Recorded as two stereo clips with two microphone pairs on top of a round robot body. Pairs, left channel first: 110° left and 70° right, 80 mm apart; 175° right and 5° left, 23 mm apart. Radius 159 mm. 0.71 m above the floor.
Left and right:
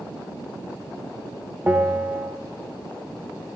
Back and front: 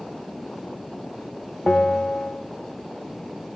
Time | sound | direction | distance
1.7 | a bell | 145° right | 1.2 m